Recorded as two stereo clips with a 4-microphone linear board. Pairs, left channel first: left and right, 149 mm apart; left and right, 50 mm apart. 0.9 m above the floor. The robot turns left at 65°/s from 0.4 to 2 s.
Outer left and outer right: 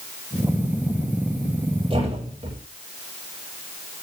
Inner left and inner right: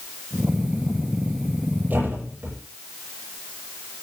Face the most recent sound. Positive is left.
turn(degrees=-45)  # may be behind; listen again after turning